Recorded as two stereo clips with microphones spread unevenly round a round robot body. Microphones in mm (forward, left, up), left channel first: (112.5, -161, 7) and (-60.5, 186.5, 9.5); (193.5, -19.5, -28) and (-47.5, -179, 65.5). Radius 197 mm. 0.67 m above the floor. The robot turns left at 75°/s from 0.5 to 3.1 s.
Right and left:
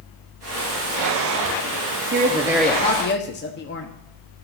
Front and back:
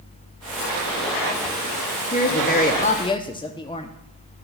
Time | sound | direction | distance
2.1 | a woman speaking | 65° left | 0.7 m